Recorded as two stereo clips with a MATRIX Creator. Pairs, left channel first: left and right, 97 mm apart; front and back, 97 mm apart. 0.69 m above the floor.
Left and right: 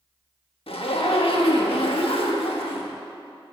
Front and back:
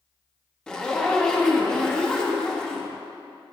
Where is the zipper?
80° left, 0.8 m.